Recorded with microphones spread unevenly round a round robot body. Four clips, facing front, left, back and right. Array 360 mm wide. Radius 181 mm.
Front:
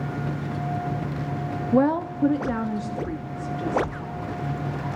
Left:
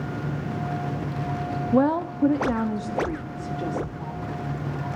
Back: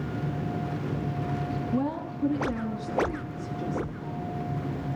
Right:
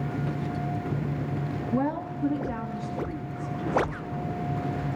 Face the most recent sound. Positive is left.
turn(degrees=70)